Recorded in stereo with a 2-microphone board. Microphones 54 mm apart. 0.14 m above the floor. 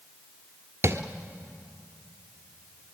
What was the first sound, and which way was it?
Tapping, 50° right (ahead or behind).